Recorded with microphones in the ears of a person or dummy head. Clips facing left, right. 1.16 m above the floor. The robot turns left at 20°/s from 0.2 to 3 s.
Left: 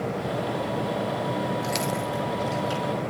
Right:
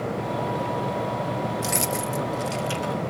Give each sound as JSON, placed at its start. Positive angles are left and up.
{"t": 1.6, "sound": "keys jangling", "side_deg": -55, "distance_m": 1.5}